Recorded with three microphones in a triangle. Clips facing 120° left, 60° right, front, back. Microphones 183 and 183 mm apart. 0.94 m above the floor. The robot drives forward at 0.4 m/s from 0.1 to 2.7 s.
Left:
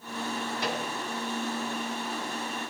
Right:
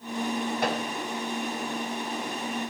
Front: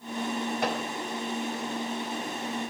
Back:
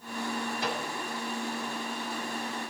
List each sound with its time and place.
0.6 s a microwave: 30° right, 4 m